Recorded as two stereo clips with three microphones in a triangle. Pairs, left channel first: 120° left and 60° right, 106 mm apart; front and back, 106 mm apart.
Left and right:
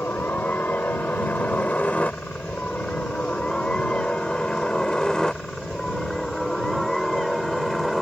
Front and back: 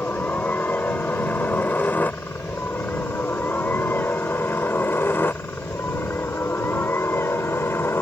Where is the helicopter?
60° left; by 8.0 s 30° left.